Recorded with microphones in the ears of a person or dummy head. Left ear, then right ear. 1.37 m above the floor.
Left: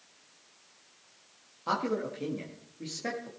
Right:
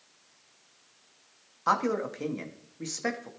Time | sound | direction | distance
1.7 | a man speaking | 45° right (ahead or behind) | 2 m